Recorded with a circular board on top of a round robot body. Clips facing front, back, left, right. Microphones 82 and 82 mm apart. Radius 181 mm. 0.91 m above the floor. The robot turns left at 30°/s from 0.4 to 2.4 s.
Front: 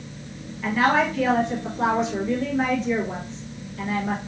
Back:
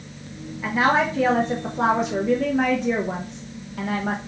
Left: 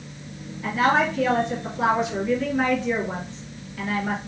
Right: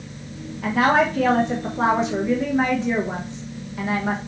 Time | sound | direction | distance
0.6 | a woman speaking | 105° right | 1.1 m